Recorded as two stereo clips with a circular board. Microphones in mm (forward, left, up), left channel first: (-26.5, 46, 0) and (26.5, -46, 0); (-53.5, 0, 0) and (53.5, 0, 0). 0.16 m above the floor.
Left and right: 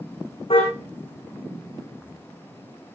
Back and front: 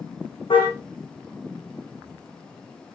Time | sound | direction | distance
0.5 | a car horn | 145° left | 6.5 m